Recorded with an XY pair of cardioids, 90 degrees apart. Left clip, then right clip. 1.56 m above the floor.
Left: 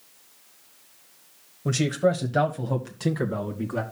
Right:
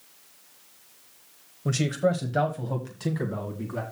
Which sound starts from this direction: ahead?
A man speaking, at 1.6 s.